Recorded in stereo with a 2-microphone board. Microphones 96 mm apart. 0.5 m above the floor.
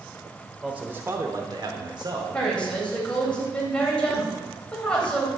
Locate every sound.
0.6 s a man speaking: 10° right (ahead or behind), 1.7 m; by 3.3 s 45° right (ahead or behind), 3 m
2.3 s a woman speaking: 10° left (ahead or behind), 3 m